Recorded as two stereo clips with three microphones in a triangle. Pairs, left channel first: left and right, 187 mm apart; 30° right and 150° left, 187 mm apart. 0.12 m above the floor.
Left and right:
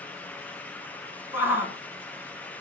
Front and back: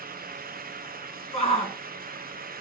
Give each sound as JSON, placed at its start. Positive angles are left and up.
{"t": 1.3, "sound": "a shout", "azimuth_deg": -20, "distance_m": 1.4}